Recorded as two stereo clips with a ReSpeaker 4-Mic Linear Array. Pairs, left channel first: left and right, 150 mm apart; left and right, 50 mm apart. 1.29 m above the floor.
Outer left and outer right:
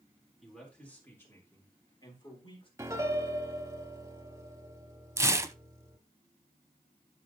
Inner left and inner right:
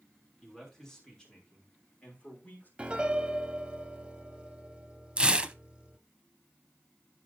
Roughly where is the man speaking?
Centre.